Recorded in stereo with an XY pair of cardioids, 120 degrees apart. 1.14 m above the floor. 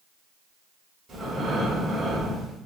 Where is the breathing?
30° right, 1.9 m.